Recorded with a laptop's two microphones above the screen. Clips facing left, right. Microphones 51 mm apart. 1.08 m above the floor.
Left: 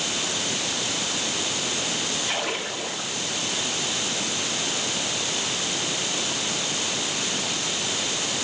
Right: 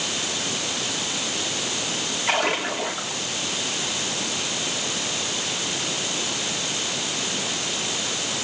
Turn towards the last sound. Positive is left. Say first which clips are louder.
# right 10 dB
turn(degrees=-75)  # may be behind; listen again after turning